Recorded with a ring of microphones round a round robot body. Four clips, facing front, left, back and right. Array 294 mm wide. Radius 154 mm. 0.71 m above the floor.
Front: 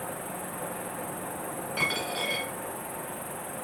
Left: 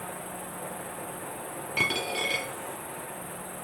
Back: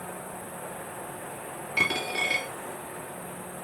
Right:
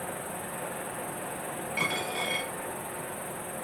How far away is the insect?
About 1.1 m.